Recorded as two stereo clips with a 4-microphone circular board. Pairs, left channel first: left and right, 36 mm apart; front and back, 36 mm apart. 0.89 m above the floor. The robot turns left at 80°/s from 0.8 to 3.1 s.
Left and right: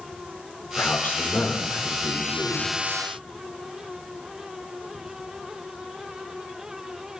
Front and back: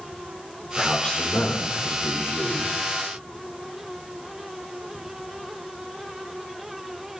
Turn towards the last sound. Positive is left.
turn(degrees=-100)